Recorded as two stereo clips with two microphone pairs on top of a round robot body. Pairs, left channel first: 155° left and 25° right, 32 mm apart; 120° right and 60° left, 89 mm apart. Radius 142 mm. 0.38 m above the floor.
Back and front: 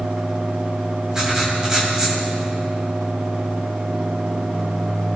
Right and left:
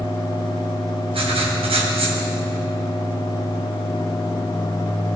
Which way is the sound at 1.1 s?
50° left.